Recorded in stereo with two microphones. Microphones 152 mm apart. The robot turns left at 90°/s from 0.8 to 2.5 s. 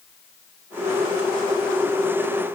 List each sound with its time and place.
Only background noise.